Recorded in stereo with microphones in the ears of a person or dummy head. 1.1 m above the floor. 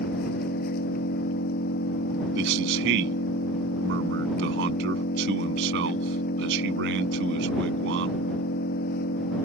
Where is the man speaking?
60° right (ahead or behind).